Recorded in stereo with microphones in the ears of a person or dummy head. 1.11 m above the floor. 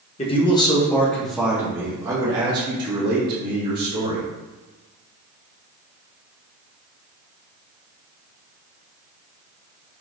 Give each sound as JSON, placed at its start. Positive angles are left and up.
{"t": 0.2, "sound": "a man speaking", "side_deg": 35, "distance_m": 0.8}